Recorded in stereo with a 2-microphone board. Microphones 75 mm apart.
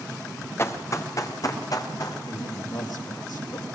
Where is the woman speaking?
65° left (ahead or behind), 4 m.